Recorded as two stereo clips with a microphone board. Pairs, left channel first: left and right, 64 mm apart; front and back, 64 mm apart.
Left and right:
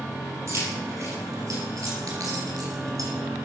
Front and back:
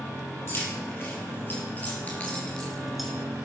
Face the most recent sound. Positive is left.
turn(degrees=-95)